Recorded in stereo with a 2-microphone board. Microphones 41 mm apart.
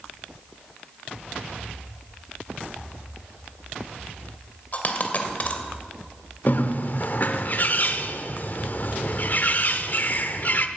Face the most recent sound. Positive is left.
turn(degrees=45)  # may be behind; listen again after turning